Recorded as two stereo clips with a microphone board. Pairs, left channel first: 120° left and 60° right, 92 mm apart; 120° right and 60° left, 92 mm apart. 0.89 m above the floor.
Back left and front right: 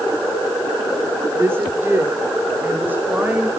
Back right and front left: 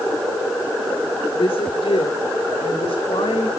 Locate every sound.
1.4 s a woman speaking: 125° right, 3 m; by 3.5 s 130° right, 4 m